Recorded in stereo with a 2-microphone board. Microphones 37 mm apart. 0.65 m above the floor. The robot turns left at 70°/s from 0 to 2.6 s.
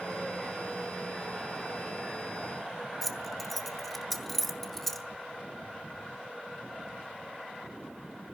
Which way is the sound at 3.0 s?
5° left (ahead or behind).